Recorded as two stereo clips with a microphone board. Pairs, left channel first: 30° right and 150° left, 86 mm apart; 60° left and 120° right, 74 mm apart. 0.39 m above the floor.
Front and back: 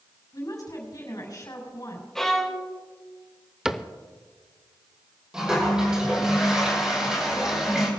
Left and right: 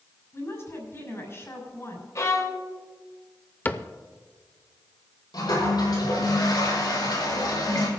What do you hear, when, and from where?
0.3 s a woman speaking: 10° left, 5.5 m
2.1 s a violin: 55° left, 1.4 m
3.6 s a cupboard door: 75° left, 0.6 m
5.3 s a toilet flushing: 70° left, 5.5 m